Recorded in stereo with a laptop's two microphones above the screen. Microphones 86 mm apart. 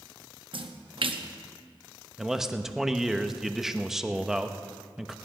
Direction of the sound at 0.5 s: 70° right (ahead or behind).